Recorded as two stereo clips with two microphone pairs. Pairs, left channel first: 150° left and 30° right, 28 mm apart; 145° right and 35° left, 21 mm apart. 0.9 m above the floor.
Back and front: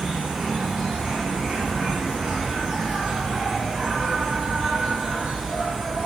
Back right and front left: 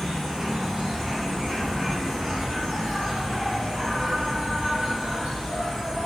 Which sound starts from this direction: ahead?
An insect, at 0.0 s.